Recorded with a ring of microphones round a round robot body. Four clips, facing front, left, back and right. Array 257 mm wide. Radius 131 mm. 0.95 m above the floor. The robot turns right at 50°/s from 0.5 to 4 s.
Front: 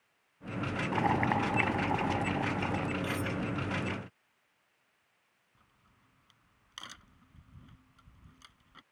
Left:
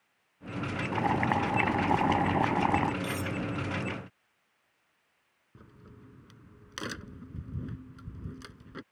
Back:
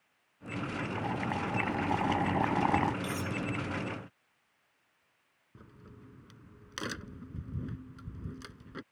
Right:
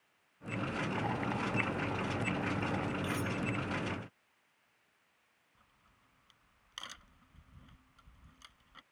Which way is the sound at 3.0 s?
135° left.